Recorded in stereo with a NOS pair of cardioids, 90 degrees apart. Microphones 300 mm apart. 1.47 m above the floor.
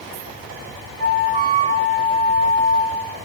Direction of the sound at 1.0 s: 20° right.